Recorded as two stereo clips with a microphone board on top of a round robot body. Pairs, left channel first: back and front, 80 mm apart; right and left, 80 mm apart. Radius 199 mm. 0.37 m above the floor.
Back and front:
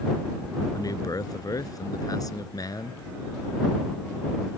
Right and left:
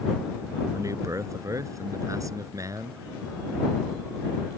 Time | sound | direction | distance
0.7 | a man speaking | 135° left | ?